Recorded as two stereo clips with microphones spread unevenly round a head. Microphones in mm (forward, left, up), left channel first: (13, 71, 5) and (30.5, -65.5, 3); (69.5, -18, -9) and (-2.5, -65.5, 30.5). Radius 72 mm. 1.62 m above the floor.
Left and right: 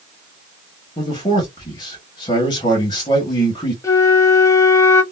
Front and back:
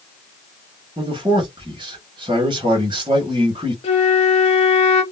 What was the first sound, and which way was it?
A man speaking, 160° left.